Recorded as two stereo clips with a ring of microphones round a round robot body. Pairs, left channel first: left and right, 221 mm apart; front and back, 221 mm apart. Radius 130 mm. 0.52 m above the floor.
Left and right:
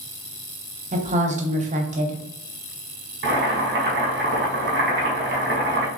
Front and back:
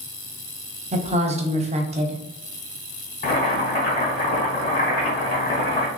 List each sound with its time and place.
0.9 s a woman speaking: 130° right, 1.0 m
3.2 s boiling: 55° right, 1.8 m